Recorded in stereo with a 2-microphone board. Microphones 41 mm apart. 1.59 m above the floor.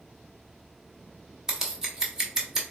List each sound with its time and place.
1.5 s scissors: 15° right (ahead or behind), 1.3 m